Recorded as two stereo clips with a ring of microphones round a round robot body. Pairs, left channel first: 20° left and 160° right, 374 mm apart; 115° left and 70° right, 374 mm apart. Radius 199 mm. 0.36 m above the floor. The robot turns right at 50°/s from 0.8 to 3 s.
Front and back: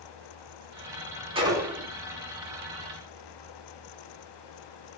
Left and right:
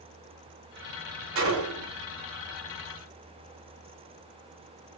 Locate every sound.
1.4 s a gunshot: 90° right, 1.2 m; by 1.9 s 60° right, 1.2 m